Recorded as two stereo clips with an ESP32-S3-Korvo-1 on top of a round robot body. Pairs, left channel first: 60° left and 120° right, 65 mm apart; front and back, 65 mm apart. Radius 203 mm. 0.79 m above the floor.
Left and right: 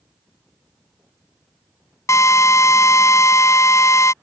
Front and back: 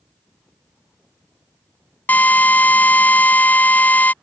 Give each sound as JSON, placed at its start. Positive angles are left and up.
{"t": 2.1, "sound": "a drill", "azimuth_deg": 55}